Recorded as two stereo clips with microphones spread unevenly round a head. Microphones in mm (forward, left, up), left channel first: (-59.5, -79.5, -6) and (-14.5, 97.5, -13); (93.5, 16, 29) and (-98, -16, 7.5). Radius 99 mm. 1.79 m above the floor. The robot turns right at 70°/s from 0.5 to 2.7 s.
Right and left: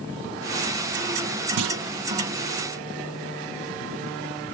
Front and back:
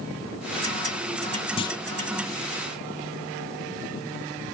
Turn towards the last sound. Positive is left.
turn(degrees=155)